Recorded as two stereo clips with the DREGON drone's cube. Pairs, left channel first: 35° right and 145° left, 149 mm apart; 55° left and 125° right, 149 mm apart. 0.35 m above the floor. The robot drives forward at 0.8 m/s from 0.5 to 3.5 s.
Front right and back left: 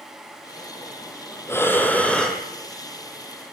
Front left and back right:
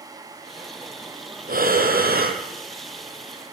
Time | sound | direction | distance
1.5 | breathing | 105° right | 3 m